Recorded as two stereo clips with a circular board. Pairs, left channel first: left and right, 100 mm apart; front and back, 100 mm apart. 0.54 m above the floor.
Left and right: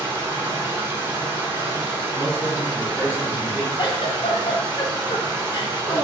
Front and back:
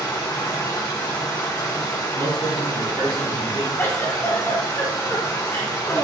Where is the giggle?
65° left, 0.6 m.